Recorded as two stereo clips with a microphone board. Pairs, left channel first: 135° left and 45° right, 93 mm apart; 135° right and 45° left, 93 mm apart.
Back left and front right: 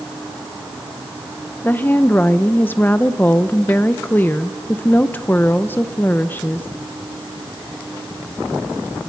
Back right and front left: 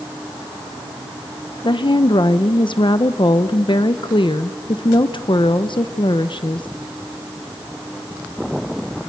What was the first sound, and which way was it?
A woman speaking, 155° right.